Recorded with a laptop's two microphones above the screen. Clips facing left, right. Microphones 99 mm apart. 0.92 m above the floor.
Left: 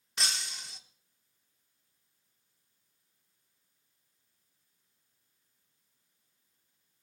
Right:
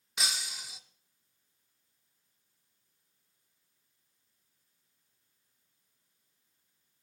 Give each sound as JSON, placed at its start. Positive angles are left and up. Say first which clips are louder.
{"t": 0.2, "sound": "breaking glass", "louder": "even", "side_deg": -5, "distance_m": 0.8}